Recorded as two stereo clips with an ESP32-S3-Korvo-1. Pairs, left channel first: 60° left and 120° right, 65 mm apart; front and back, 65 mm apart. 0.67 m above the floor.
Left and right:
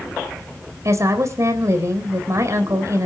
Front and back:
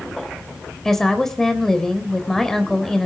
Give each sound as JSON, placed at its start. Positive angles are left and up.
{"t": 0.8, "sound": "a woman speaking", "azimuth_deg": -85, "distance_m": 3.5}